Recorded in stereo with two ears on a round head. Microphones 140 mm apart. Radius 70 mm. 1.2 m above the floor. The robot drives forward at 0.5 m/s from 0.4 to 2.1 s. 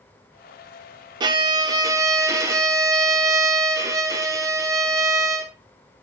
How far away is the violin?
About 0.7 m.